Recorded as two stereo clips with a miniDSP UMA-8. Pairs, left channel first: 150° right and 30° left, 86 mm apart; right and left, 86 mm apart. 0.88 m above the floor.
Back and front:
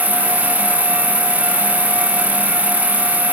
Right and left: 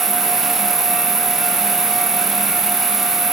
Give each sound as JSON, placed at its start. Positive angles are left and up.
{"t": 0.0, "sound": "an insect", "azimuth_deg": 125}